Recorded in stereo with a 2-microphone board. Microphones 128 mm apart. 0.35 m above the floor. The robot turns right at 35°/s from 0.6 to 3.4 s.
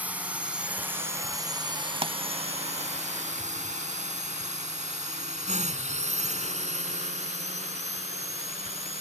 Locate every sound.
0.0 s a drone: 15° right (ahead or behind); by 9.0 s 60° right (ahead or behind)
2.0 s a pop: 45° right (ahead or behind); by 2.1 s 50° right (ahead or behind)